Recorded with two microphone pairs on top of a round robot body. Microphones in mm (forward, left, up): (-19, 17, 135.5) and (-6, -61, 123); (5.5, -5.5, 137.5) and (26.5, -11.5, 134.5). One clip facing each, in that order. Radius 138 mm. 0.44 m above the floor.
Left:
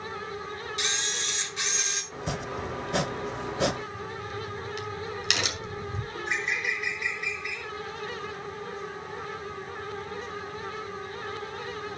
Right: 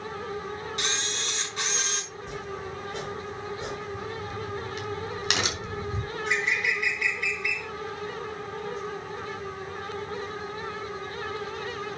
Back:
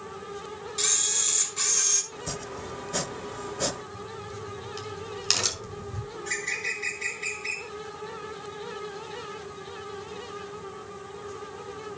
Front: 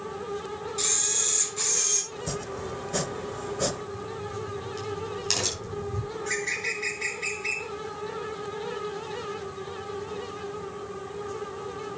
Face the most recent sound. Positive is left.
turn(degrees=-95)